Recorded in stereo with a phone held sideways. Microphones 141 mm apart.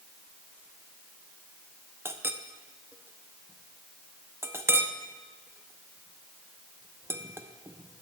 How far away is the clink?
About 0.6 m.